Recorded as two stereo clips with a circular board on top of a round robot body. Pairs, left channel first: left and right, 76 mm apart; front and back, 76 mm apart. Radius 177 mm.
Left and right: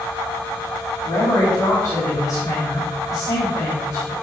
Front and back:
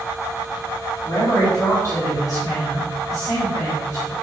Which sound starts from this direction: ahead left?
A man speaking, at 1.0 s.